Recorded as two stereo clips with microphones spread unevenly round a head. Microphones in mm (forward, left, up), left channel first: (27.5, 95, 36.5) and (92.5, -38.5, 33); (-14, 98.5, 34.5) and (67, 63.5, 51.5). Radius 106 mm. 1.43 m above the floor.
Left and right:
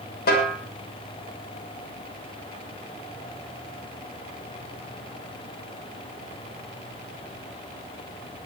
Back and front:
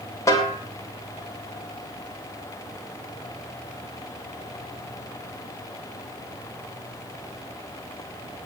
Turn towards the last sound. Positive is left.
turn(degrees=100)